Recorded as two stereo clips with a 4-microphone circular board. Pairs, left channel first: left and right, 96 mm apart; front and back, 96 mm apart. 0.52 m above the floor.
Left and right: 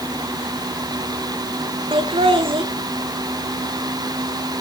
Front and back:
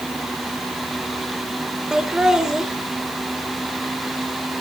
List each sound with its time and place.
1.9 s laughter: 95° right, 1.6 m